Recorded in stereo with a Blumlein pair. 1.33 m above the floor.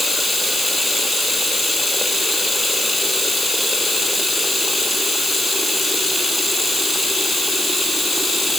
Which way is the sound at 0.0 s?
10° left.